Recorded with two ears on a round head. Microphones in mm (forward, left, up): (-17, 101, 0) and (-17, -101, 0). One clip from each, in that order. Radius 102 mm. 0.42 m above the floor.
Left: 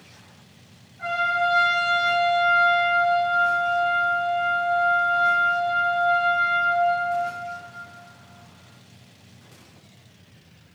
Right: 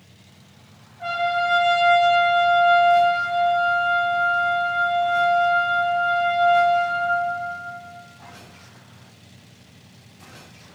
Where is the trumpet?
45° left (ahead or behind), 0.9 m.